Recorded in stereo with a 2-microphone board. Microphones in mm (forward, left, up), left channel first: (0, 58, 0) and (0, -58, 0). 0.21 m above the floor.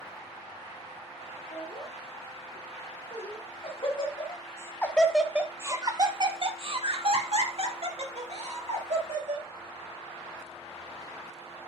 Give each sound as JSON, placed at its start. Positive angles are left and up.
{"t": 1.5, "sound": "laughter", "side_deg": 70, "distance_m": 3.0}